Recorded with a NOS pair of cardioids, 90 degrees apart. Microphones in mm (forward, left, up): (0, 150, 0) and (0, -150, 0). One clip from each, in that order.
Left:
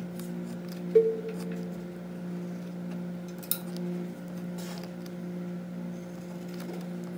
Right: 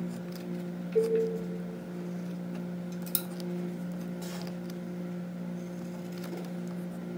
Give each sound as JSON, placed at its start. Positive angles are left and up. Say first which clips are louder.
{"t": 0.9, "sound": "a cowbell", "louder": "left 4 dB", "azimuth_deg": 50, "distance_m": 0.5}